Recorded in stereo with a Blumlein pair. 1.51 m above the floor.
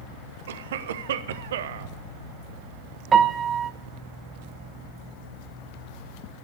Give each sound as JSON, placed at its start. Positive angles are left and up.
{"t": 0.5, "sound": "a cough", "azimuth_deg": -55, "distance_m": 1.1}
{"t": 3.1, "sound": "a piano", "azimuth_deg": -25, "distance_m": 0.9}